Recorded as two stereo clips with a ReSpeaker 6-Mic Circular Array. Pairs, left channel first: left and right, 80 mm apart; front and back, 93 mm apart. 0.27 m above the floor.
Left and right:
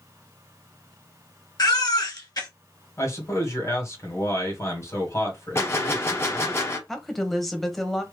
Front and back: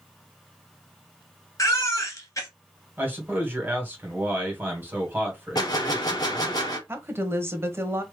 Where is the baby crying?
55° left, 1.9 m.